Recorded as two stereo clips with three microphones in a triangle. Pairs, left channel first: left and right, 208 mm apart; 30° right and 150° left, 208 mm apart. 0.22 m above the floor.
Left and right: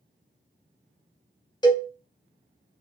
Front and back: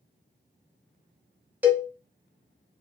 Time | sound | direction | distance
1.6 | a cowbell | 85° left | 0.6 m